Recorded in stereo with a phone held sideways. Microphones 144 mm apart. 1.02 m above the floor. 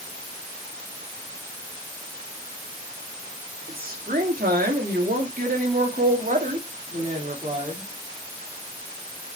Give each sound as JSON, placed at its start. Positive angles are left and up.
{"t": 3.7, "sound": "a woman speaking", "side_deg": -70, "distance_m": 2.0}